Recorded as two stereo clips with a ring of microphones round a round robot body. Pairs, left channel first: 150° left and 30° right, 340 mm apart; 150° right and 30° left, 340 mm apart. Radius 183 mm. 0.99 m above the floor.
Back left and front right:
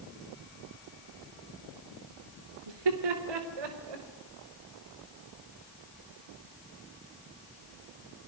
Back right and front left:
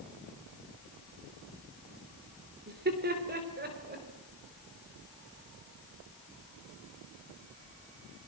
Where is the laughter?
35° right, 3 m.